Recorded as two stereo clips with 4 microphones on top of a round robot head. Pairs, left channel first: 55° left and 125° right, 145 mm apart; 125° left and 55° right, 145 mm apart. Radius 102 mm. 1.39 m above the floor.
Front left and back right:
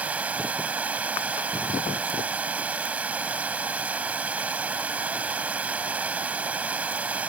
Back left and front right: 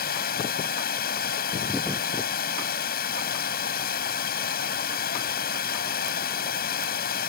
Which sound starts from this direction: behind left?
Running water, at 0.0 s.